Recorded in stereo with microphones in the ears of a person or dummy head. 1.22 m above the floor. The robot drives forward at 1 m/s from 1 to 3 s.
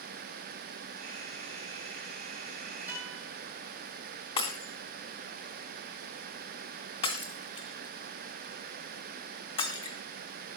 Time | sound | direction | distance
2.9 | a guitar | 15° right (ahead or behind) | 7.5 m
4.4 | breaking glass | 20° left (ahead or behind) | 2.5 m